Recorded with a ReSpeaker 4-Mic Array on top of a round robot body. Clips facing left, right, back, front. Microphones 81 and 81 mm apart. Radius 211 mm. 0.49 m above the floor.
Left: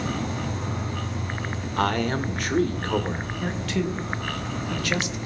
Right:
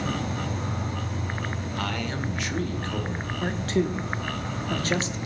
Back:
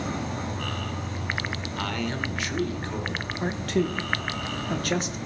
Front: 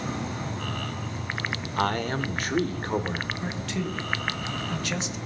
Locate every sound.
0.0 s an insect: 125° right, 6.5 m
1.8 s a man speaking: 45° left, 1.6 m
3.4 s a man speaking: 140° right, 1.9 m